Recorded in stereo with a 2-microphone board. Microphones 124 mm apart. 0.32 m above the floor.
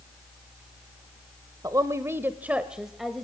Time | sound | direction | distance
1.6 | a woman speaking | 30° right (ahead or behind) | 0.9 m